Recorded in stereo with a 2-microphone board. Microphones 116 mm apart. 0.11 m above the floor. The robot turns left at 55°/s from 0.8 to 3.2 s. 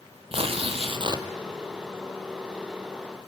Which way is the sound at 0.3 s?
55° right (ahead or behind).